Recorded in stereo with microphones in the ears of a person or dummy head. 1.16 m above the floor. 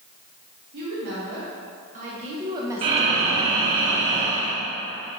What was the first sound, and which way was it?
A woman speaking, 55° right (ahead or behind).